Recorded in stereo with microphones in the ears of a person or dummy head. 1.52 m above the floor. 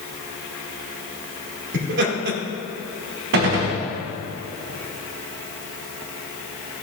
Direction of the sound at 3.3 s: 55° right (ahead or behind).